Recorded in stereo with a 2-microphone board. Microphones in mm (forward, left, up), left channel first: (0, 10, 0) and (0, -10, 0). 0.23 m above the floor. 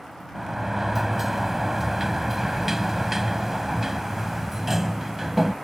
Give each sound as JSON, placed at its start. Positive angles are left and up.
{"t": 0.3, "sound": "a sliding door", "side_deg": -15}